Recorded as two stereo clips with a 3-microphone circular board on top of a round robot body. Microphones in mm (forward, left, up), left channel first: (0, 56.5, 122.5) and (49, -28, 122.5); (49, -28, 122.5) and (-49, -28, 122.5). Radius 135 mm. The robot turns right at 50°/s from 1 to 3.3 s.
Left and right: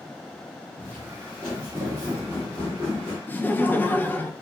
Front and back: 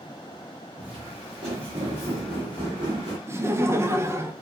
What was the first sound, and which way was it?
Footsteps, 160° right.